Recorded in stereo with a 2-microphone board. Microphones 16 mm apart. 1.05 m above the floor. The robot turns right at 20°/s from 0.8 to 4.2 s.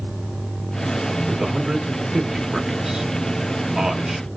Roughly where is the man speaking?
Right.